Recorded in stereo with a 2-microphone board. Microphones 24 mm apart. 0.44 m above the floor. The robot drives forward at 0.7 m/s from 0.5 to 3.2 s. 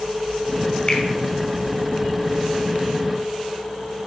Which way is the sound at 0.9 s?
40° left (ahead or behind).